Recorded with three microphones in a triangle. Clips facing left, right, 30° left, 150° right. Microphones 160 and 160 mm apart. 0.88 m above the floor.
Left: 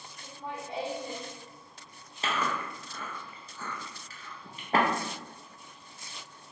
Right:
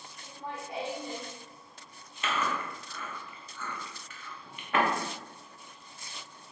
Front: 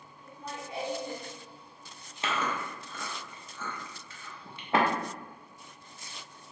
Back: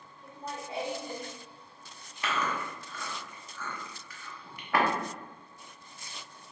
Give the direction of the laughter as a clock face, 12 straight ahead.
6 o'clock.